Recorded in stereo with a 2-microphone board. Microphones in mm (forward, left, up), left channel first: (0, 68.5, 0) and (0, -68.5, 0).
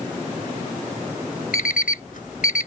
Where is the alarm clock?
80° left.